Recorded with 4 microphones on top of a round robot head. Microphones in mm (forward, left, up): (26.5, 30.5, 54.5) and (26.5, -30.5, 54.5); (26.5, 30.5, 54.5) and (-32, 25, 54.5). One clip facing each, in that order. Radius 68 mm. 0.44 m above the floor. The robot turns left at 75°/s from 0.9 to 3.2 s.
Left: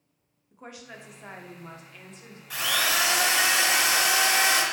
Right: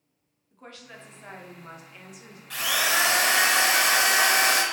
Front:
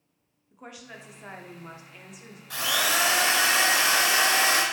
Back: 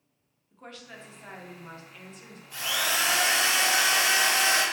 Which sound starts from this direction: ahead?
A drill, at 2.5 s.